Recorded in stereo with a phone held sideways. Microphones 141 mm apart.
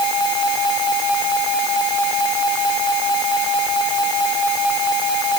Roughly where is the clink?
I don't hear a clink.